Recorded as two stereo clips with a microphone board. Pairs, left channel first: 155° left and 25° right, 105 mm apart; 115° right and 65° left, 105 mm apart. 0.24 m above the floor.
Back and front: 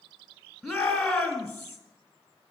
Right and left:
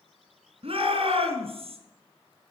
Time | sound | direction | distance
0.6 | a shout | 70° left | 2.5 m